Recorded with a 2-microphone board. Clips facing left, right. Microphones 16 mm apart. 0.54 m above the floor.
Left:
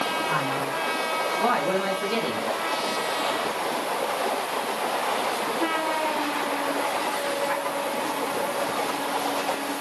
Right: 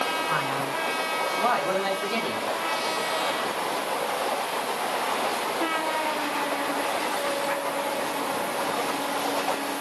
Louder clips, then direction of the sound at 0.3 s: Left 1 dB; 5° right (ahead or behind).